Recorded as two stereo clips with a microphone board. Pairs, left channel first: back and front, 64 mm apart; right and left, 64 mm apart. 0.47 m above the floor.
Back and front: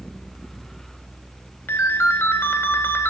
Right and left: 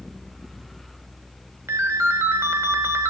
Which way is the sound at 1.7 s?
130° left.